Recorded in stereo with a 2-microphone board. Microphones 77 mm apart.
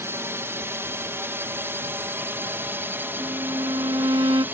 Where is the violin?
90° right.